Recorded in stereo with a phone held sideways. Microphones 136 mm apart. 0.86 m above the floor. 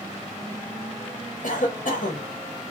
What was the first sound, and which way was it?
A cough, 70° left (ahead or behind).